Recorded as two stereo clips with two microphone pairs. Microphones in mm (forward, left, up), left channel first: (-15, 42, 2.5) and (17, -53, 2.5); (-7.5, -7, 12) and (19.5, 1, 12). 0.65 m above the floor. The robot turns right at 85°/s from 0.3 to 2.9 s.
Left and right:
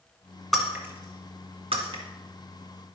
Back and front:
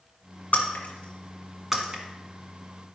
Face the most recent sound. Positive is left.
turn(degrees=40)